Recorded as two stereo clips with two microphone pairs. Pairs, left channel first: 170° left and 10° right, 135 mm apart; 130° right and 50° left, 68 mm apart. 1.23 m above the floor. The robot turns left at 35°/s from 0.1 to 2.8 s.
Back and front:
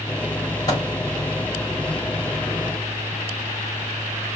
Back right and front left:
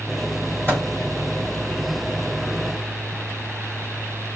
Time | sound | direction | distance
0.7 | a microwave | 110° left | 4 m